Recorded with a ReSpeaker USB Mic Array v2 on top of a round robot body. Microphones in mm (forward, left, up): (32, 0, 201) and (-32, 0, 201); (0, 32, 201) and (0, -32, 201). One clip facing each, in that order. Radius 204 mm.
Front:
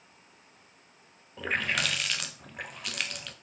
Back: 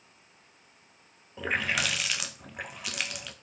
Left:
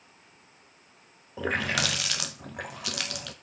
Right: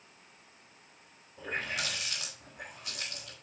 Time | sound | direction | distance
1.4 | a running tap | 95° left | 0.5 m